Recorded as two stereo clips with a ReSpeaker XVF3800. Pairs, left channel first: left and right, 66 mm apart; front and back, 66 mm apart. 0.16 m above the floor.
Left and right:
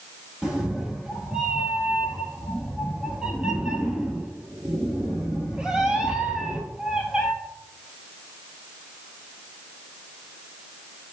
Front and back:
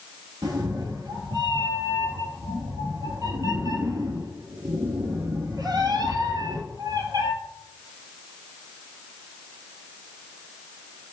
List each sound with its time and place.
0.4 s a cat meowing: 165° right, 0.9 m